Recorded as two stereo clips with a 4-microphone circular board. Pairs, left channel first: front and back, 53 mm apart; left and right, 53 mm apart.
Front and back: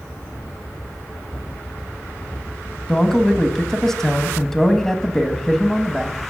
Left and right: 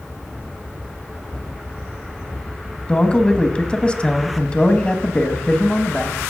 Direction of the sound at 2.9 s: 70° left.